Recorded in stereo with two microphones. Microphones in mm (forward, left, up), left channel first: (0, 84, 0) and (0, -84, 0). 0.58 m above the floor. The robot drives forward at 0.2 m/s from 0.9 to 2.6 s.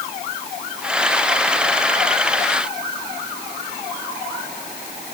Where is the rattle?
No rattle in this recording.